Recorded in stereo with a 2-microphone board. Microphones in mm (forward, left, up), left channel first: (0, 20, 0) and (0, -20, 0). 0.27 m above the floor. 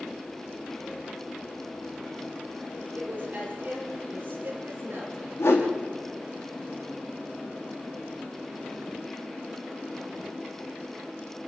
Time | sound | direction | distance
3.0 | a woman speaking | 40° right (ahead or behind) | 7.5 m
5.4 | a whoosh | 85° left | 4 m